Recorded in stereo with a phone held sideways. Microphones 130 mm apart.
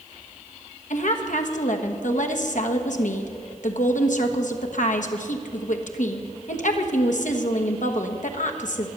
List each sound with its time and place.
0.9 s a woman speaking: 70° left (ahead or behind), 1.2 m